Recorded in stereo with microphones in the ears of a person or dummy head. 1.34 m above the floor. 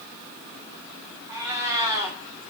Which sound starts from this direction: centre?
A cat meowing, at 1.3 s.